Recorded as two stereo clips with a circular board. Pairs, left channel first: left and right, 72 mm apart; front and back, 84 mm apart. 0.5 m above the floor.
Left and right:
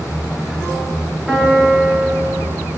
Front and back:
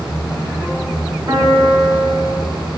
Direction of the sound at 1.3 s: 175° left.